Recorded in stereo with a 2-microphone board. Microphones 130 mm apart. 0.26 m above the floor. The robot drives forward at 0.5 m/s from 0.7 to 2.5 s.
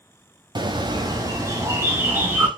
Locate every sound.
0.6 s a bird: 35° right (ahead or behind), 0.5 m; by 2.5 s 15° right (ahead or behind), 1.2 m